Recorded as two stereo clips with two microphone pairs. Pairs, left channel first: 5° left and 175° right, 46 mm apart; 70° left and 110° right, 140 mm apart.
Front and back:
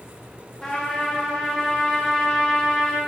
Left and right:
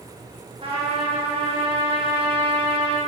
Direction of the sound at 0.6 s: 70° right.